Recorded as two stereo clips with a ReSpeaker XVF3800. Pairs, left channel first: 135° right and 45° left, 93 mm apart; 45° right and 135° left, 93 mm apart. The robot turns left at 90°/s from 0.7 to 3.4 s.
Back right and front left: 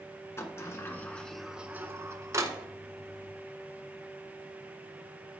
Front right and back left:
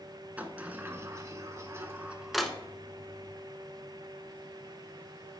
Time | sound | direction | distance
0.4 | a sliding door | 165° right | 0.7 m